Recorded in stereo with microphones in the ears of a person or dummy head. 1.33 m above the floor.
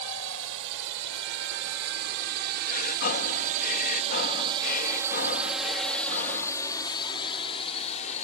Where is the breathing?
50° left (ahead or behind).